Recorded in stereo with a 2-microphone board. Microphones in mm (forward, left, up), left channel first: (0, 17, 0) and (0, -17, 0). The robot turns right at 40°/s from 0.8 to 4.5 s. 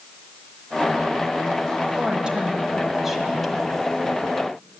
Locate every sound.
2.0 s a woman speaking: 55° right, 1.4 m; by 3.8 s 15° left, 1.4 m